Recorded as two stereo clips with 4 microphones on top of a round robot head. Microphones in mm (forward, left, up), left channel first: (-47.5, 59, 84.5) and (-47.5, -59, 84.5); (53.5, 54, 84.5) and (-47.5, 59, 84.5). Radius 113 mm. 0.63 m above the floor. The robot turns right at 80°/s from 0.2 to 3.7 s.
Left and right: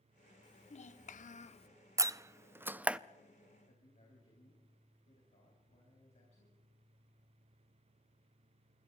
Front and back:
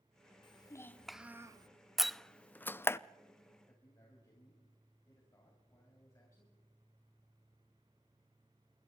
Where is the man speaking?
50° left, 4.5 m; by 6.5 s 55° left, 4.5 m.